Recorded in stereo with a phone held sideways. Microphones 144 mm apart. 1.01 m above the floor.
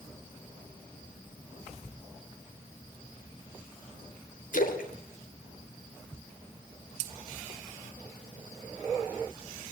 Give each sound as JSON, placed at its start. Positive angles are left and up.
{"t": 4.5, "sound": "a splash", "side_deg": 65, "distance_m": 3.5}